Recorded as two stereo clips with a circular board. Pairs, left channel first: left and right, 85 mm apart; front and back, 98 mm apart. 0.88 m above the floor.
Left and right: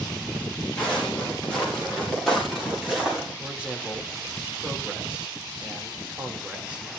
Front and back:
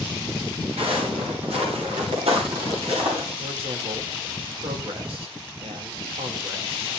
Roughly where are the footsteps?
Behind.